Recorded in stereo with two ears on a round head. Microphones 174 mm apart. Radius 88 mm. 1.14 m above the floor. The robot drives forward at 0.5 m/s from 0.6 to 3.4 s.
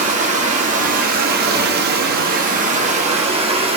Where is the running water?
35° right (ahead or behind), 0.9 m; by 3.8 s 30° right (ahead or behind), 1.1 m.